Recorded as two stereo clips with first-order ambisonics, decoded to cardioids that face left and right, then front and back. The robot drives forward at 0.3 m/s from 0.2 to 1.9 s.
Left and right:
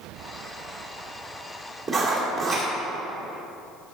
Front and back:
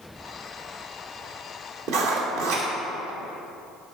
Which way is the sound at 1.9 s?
175° right.